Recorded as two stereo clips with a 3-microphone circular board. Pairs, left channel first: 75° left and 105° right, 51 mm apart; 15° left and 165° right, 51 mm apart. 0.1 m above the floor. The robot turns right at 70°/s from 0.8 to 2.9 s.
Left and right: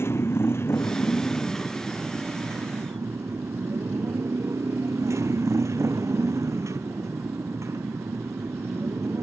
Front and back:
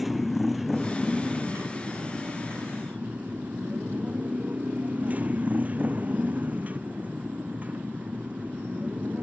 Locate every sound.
0.0 s a motorcycle: 105° left; by 9.2 s 105° right